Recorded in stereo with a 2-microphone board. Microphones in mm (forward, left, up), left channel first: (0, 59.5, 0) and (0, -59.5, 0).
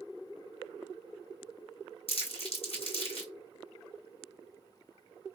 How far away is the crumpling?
About 1.9 m.